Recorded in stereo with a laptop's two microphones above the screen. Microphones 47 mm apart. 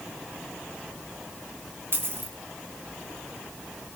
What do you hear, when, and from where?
1.9 s a dropped coin: 55° right (ahead or behind), 1.7 m